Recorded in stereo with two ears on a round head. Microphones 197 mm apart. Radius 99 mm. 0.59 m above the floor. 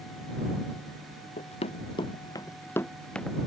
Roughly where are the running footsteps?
Left.